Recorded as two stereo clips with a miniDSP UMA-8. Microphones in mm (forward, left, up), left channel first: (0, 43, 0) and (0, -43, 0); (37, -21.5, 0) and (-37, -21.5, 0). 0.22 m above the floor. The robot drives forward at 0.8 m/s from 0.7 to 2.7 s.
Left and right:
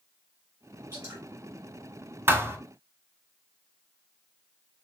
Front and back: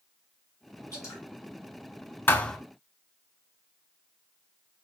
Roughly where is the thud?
Ahead right.